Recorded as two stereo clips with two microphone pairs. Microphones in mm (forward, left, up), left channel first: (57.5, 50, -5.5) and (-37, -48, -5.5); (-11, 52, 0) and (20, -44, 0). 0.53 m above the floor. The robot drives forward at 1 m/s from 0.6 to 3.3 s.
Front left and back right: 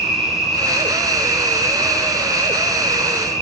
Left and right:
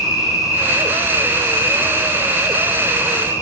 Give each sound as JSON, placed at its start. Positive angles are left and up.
{"t": 0.0, "sound": "an insect", "azimuth_deg": -90, "distance_m": 3.0}